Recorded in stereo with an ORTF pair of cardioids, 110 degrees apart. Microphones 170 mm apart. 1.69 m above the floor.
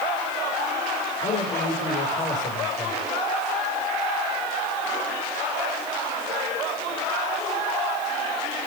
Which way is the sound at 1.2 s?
50° left.